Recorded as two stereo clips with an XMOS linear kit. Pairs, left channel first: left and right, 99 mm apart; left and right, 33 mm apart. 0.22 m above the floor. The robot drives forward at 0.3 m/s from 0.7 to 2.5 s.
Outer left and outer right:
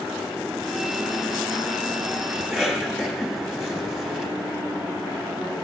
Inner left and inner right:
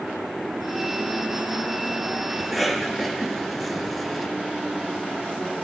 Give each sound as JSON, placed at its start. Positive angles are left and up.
{"t": 2.4, "sound": "a cough", "side_deg": -5, "distance_m": 1.4}